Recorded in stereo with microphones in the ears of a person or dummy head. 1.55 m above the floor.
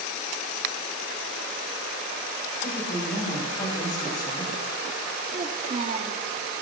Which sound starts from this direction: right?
A child speaking, at 5.3 s.